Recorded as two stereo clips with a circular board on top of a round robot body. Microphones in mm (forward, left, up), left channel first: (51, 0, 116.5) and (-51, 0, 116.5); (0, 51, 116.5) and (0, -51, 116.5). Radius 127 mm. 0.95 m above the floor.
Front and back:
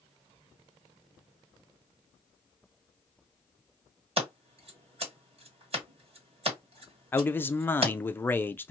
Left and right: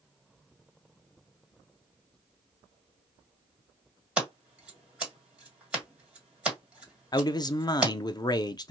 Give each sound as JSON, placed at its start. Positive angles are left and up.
{"t": 4.2, "sound": "scissors", "azimuth_deg": -170, "distance_m": 1.8}
{"t": 7.1, "sound": "a man speaking", "azimuth_deg": 60, "distance_m": 0.5}